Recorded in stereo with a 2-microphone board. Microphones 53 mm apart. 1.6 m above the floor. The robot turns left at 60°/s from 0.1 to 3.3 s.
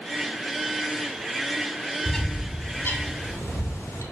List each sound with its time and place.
2.0 s a bird: 5° left (ahead or behind), 0.5 m; by 4.0 s 65° left (ahead or behind), 0.5 m